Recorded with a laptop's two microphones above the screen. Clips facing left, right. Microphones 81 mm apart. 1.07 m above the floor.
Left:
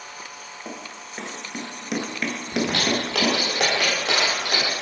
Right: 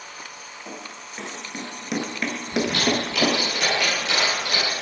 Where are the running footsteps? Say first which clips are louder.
Left 1 dB; 30° left (ahead or behind), 1.2 m; by 3.4 s 30° right (ahead or behind), 1.3 m.